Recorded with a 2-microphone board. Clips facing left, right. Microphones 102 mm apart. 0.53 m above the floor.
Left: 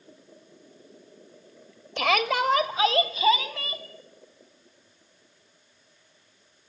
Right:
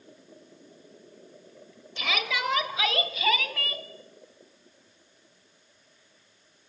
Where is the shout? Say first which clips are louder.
Left 7 dB; 60° left (ahead or behind), 1.7 m; by 3.9 s 20° left (ahead or behind), 3.5 m.